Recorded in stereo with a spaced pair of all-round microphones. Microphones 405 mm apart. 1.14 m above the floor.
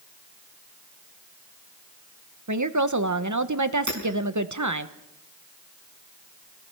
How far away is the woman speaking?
About 1.1 m.